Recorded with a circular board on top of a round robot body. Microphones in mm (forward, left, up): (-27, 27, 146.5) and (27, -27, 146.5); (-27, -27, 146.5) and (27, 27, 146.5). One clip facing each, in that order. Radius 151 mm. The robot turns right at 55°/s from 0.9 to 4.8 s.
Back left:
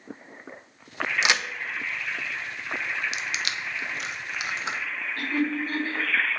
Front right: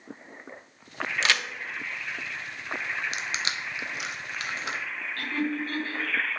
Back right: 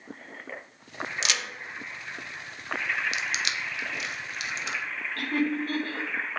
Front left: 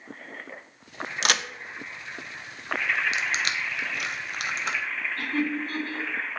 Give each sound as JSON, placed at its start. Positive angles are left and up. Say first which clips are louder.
{"t": 1.2, "sound": "a crack", "louder": "back left 1 dB, front left 7 dB", "azimuth_deg": 65, "distance_m": 0.9}
{"t": 3.1, "sound": "crushing", "louder": "back left 1 dB, front left 3 dB", "azimuth_deg": -10, "distance_m": 1.4}
{"t": 5.2, "sound": "laughter", "louder": "back left 3 dB, back right 2 dB", "azimuth_deg": -150, "distance_m": 4.5}